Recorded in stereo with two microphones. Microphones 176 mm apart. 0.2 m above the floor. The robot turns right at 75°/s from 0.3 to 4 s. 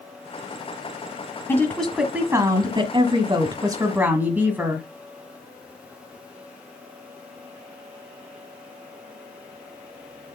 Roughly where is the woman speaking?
Centre.